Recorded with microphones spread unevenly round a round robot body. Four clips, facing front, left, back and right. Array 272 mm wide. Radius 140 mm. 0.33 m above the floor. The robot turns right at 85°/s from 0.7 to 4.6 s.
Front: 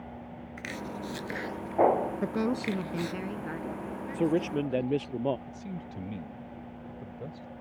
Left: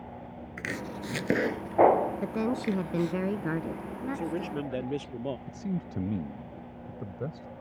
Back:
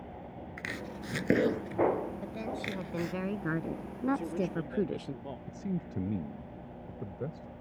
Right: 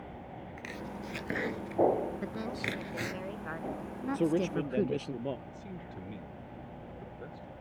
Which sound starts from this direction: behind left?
A man speaking, at 5.5 s.